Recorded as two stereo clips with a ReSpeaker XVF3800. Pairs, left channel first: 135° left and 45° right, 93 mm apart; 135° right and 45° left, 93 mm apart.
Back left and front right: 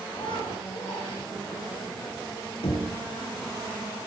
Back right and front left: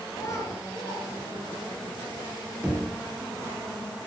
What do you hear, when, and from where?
0.1 s a child speaking: 170° left, 5.5 m
2.6 s knocking: 125° left, 4 m